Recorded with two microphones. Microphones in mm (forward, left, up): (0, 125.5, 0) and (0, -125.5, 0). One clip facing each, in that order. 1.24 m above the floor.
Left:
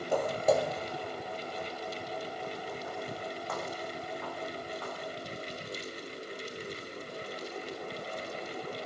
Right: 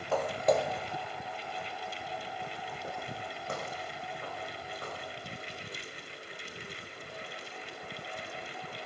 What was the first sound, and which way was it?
Footsteps, 15° left (ahead or behind).